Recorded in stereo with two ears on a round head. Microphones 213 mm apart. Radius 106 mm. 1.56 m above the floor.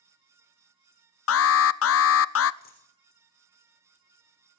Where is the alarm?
60° left (ahead or behind), 0.6 m.